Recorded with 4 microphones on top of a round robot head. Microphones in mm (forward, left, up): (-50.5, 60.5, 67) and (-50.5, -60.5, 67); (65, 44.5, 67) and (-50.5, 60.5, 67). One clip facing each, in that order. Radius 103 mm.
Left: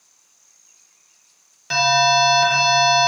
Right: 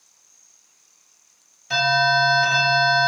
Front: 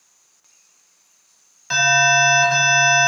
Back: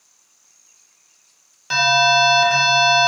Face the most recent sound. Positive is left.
turn(degrees=100)